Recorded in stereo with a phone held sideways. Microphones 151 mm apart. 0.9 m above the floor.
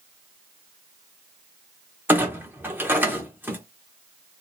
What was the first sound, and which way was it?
A clunk, 15° right (ahead or behind).